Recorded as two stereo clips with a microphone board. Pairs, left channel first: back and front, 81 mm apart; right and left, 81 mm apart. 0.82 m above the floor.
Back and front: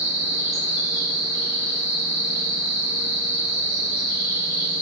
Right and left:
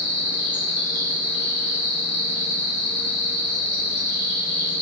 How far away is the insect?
About 1.3 m.